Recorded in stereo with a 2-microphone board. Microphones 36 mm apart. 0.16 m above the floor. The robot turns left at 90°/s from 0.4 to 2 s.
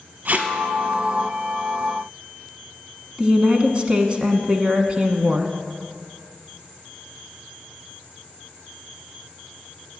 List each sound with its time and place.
0.2 s tape being pulled: 45° right (ahead or behind), 0.9 m; by 0.5 s 50° right (ahead or behind), 0.9 m
3.2 s a woman speaking: 30° right (ahead or behind), 1.1 m